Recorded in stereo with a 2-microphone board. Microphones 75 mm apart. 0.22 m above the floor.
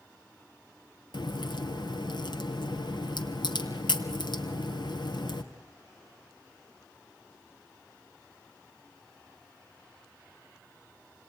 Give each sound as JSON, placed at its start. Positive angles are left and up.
{"t": 1.1, "sound": "a crack", "side_deg": 75, "distance_m": 3.0}